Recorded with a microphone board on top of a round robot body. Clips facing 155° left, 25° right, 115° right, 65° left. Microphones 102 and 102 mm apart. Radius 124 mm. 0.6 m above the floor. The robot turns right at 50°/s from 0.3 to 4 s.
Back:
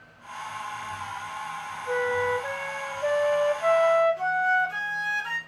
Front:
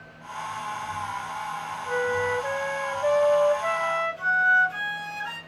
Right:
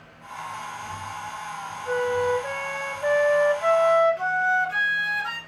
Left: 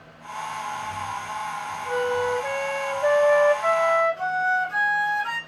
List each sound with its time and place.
1.9 s a flute: 50° left, 1.2 m; by 5.4 s 160° left, 1.2 m